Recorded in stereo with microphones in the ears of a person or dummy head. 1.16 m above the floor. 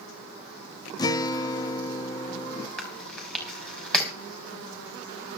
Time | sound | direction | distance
1.0 | a guitar | 20° left (ahead or behind) | 0.6 m
2.8 | chewing | 5° left (ahead or behind) | 4 m